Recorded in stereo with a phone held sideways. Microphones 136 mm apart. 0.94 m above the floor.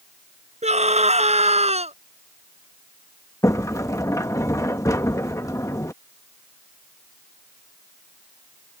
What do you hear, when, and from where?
0.6 s a scream: 55° right (ahead or behind); by 1.9 s 50° right (ahead or behind)
3.4 s a sliding door: 25° left (ahead or behind)